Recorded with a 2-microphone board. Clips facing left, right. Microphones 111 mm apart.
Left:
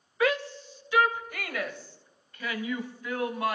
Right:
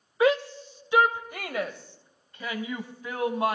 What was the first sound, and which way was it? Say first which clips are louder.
A shout: right 4 dB; 25° right (ahead or behind).